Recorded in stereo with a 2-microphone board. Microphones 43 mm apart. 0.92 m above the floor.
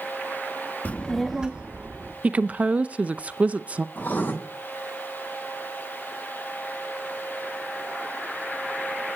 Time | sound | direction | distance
0.8 | a child speaking | 40° left (ahead or behind) | 0.7 m
2.2 | a woman speaking | 35° right (ahead or behind) | 0.5 m
4.0 | writing | 45° left (ahead or behind) | 7 m